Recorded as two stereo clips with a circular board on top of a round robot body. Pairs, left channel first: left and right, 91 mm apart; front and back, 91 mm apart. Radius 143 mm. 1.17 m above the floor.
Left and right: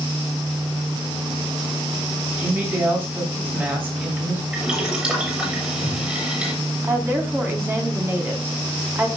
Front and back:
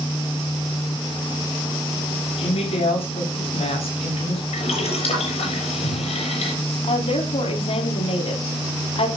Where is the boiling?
15° right, 6.5 m.